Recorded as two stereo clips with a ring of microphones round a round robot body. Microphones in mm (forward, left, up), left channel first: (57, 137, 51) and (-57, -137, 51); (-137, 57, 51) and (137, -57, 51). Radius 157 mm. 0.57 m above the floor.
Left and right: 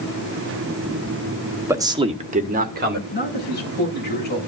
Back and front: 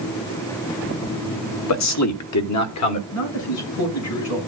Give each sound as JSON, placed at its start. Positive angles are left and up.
{"t": 1.7, "sound": "a man speaking", "azimuth_deg": 165, "distance_m": 0.9}
{"t": 3.1, "sound": "a man speaking", "azimuth_deg": 125, "distance_m": 7.0}